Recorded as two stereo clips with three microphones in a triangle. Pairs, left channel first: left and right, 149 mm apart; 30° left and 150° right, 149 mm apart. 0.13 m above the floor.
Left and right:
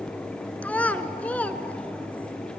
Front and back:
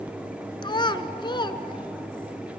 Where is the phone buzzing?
I don't hear a phone buzzing.